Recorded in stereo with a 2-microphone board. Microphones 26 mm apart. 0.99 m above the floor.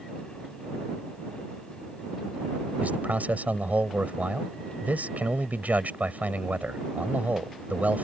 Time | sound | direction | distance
2.8 | a man speaking | 80° right | ?